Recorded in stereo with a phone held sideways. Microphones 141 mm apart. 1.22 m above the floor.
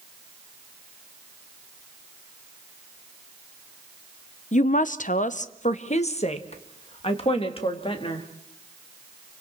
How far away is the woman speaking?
About 0.6 m.